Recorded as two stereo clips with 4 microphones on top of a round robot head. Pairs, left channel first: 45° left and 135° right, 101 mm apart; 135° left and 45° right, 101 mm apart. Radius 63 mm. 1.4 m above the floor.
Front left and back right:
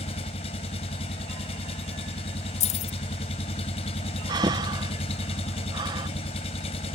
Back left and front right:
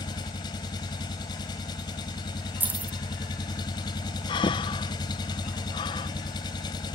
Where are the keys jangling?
25° left.